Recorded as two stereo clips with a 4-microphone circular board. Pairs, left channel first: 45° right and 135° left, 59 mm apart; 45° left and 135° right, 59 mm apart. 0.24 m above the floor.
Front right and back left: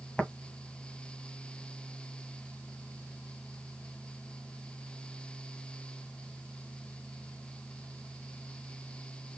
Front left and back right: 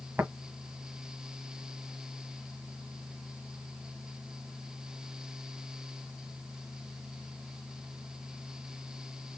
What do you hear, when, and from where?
0.2 s tapping: 110° right, 1.7 m